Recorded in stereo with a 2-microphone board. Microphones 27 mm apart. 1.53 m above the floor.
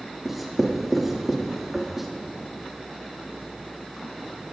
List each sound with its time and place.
0.2 s writing: 10° right (ahead or behind), 2 m